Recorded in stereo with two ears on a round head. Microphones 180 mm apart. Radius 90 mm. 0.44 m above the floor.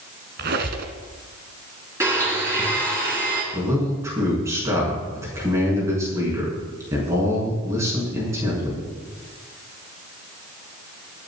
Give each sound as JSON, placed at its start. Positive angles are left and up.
{"t": 0.4, "sound": "a squeak", "side_deg": -55, "distance_m": 1.6}
{"t": 2.0, "sound": "a blender", "side_deg": -15, "distance_m": 4.0}
{"t": 3.5, "sound": "a man speaking", "side_deg": -15, "distance_m": 4.5}